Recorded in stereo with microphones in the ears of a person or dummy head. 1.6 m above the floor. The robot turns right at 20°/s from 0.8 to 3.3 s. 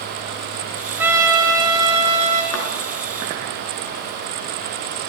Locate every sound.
1.0 s a trumpet: 10° right (ahead or behind), 2 m; by 2.4 s 40° right (ahead or behind), 2 m
2.5 s a thud: 70° left (ahead or behind), 4.5 m